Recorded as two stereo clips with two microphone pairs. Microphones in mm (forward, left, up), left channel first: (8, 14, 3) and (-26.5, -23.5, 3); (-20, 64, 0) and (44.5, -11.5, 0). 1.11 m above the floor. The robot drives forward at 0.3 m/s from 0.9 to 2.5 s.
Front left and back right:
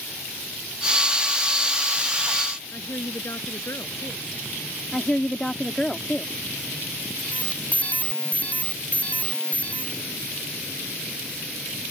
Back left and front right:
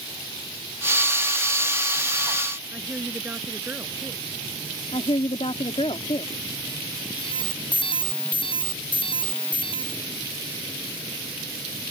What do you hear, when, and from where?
2.7 s a woman speaking: 25° left
4.9 s a woman speaking: 120° left
7.2 s an alarm: 110° left